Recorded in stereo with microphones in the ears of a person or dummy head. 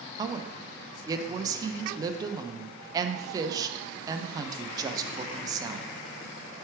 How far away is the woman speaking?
About 0.7 m.